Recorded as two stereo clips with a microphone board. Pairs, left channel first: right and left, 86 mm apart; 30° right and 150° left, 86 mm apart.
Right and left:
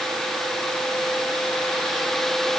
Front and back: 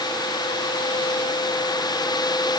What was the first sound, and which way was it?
Only background noise.